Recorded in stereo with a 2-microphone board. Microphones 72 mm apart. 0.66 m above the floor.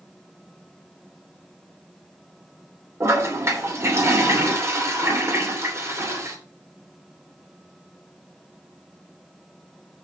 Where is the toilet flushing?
40° right (ahead or behind), 3 m.